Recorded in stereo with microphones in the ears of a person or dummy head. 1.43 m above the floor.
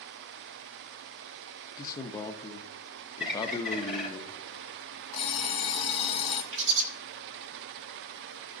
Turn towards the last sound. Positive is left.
turn(degrees=-65)  # may be behind; listen again after turning